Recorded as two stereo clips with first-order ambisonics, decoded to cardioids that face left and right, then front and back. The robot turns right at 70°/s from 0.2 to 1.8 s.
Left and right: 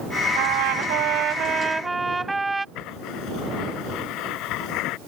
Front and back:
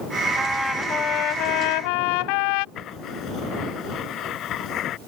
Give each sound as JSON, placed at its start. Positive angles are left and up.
{"t": 0.4, "sound": "a trumpet", "azimuth_deg": -105}
{"t": 2.8, "sound": "writing", "azimuth_deg": 55}